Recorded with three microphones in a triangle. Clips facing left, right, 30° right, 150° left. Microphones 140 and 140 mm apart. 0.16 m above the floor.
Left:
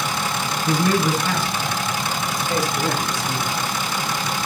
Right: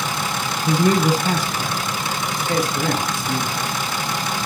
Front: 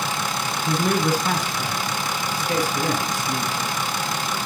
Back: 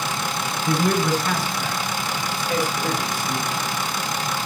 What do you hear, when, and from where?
0.7 s a man speaking: 125° right, 1.2 m; by 3.5 s 65° right, 2.5 m